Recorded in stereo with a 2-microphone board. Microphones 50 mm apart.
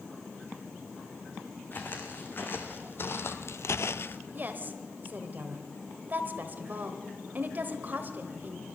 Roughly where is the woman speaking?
Right.